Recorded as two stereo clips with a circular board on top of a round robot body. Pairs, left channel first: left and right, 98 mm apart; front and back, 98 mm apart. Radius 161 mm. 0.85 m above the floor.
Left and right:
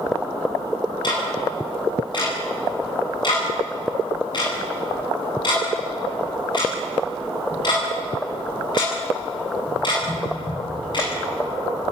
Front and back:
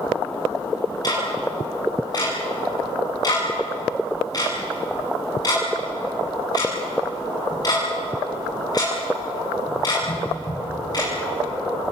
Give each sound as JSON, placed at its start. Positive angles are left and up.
{"t": 1.0, "sound": "ticking", "azimuth_deg": 50, "distance_m": 10.0}